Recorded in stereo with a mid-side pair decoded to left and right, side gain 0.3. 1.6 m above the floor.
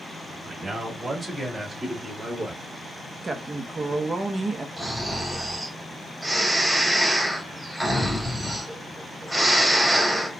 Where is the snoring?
20° right, 2.5 m.